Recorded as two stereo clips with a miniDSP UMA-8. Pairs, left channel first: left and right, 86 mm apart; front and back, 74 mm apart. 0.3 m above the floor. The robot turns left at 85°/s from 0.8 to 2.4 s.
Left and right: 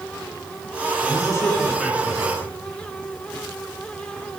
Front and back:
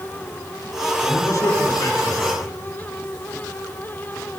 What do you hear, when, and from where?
1.0 s a man speaking: 60° left, 4.5 m; by 2.5 s 55° right, 4.5 m